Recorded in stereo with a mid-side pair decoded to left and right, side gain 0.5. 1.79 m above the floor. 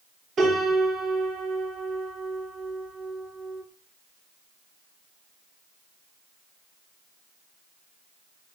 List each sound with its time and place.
0.4 s a piano: 65° right, 4.5 m